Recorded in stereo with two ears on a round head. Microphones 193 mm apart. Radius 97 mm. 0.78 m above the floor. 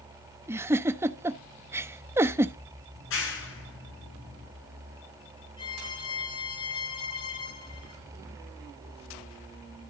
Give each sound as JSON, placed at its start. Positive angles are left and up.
{"t": 0.5, "sound": "a giggle", "side_deg": -10, "distance_m": 0.8}
{"t": 3.0, "sound": "a clap", "side_deg": 65, "distance_m": 8.5}
{"t": 5.6, "sound": "a violin", "side_deg": 20, "distance_m": 3.0}